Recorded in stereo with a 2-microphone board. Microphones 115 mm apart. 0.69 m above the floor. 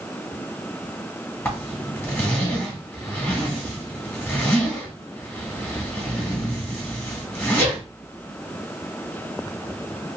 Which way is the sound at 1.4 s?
15° left (ahead or behind).